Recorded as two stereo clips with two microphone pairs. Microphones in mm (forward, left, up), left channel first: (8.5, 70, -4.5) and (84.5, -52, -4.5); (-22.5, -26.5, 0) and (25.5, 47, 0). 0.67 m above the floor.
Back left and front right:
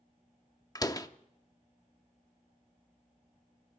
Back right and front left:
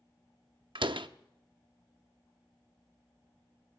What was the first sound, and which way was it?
A door slam, 55° left.